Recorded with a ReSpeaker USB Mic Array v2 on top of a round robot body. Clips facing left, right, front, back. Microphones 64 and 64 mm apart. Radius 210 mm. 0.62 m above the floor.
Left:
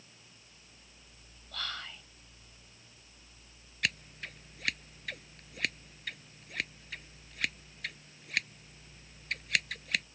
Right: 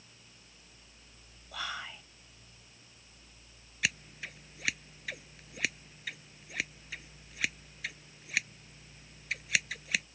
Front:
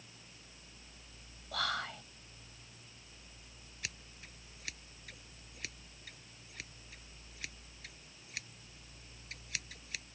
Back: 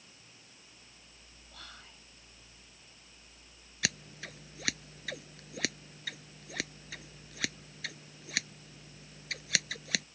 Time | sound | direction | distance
1.5 | whispering | 15° right | ?
3.8 | scissors | 175° right | ?